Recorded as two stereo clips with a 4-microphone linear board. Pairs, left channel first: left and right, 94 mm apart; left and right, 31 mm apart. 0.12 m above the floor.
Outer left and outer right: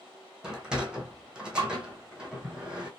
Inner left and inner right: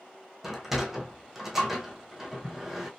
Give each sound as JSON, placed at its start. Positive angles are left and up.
{"t": 0.4, "sound": "a sliding door", "side_deg": -10, "distance_m": 1.1}